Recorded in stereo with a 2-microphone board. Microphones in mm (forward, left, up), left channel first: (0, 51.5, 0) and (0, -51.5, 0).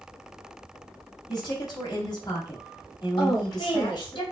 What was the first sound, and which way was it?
A woman speaking, 40° left (ahead or behind).